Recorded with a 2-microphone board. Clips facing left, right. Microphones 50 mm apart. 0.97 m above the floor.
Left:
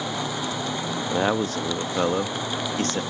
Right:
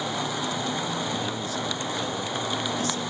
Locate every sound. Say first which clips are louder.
1.1 s a man speaking: left 7 dB; 55° left (ahead or behind), 1.4 m